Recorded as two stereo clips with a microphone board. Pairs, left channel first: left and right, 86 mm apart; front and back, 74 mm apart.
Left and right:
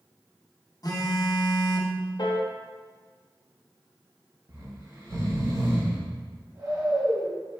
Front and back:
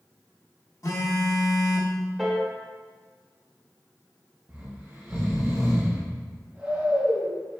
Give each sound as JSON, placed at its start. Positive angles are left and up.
{"t": 0.8, "sound": "a phone buzzing", "azimuth_deg": 45, "distance_m": 0.6}
{"t": 2.2, "sound": "a piano", "azimuth_deg": 90, "distance_m": 0.6}
{"t": 4.5, "sound": "snoring", "azimuth_deg": -110, "distance_m": 1.3}